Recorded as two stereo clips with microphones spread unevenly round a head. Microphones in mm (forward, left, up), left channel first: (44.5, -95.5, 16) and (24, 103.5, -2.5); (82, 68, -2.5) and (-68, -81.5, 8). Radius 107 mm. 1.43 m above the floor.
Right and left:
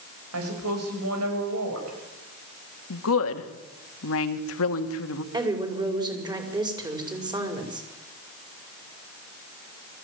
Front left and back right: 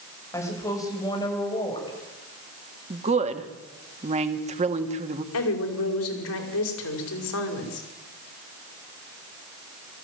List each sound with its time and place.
0.3 s a woman speaking: 125° left, 6 m; by 2.0 s 115° left, 6.5 m
2.9 s a woman speaking: 75° right, 2 m
5.3 s a woman speaking: 25° left, 5.5 m